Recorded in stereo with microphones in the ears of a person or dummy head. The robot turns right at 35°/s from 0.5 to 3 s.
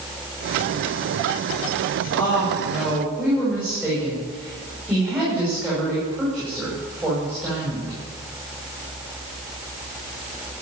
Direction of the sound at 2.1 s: 20° left (ahead or behind).